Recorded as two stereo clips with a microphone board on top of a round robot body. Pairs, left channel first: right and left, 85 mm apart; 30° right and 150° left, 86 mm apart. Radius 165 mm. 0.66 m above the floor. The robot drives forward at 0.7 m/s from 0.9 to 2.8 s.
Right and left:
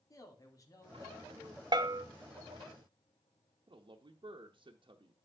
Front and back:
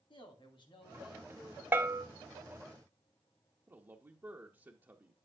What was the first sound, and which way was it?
A man speaking, 45° right.